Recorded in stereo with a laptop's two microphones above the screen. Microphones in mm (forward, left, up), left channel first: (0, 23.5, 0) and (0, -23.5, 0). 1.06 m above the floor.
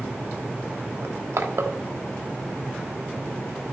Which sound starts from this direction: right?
Crushing, at 1.0 s.